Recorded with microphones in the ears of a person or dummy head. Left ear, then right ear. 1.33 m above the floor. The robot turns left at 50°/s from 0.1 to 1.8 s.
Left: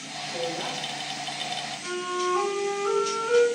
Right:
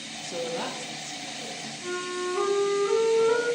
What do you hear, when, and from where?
0.2 s a woman speaking: 60° right, 1.0 m; by 1.8 s 140° right, 1.0 m
1.8 s a flute: 45° left (ahead or behind), 1.3 m